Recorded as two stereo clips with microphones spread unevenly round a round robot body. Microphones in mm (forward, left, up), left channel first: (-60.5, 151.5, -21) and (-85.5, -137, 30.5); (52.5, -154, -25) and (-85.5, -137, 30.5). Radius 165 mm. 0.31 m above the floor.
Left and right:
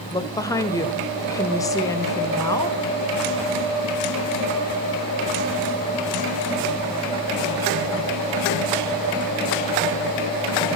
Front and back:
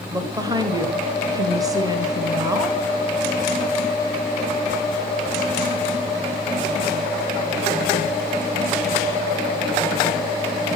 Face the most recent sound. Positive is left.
turn(degrees=85)